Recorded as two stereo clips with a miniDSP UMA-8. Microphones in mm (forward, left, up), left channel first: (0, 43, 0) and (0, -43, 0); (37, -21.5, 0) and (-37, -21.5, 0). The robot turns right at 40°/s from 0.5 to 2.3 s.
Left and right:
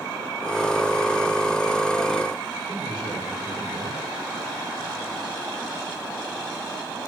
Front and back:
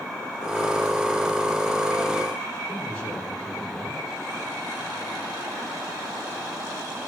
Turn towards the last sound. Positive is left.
turn(degrees=-75)